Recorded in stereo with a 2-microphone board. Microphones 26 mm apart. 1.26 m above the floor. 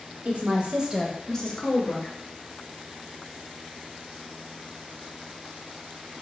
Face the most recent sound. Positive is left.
turn(degrees=55)  # may be behind; listen again after turning